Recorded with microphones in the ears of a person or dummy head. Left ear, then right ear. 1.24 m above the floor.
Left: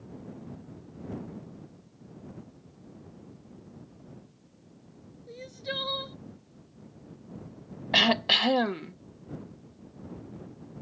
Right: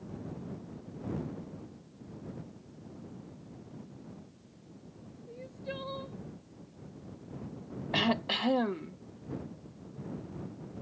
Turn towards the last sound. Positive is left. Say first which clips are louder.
# left 8 dB
turn(degrees=35)  # may be behind; listen again after turning